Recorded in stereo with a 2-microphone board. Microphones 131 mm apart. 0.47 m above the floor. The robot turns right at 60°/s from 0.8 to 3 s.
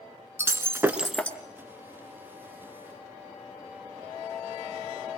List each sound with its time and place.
0.4 s breaking glass: 20° right, 1.7 m; by 1.4 s 15° left, 1.7 m